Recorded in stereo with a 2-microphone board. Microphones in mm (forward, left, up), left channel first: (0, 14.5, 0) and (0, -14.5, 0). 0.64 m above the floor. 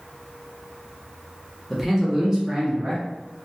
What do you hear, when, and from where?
1.7 s a man speaking: 5° right (ahead or behind), 0.7 m; by 3.0 s 35° right (ahead or behind), 0.9 m